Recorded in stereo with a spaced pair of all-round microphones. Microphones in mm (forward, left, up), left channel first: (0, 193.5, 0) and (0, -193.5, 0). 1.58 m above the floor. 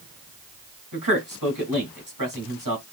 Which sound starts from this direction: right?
A man speaking, at 0.9 s.